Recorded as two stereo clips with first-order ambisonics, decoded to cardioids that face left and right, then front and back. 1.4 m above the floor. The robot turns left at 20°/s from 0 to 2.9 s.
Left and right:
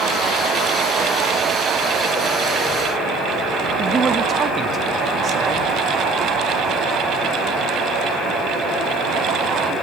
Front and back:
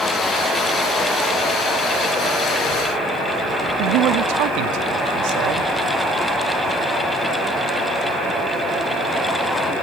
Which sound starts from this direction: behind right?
A man speaking, at 3.8 s.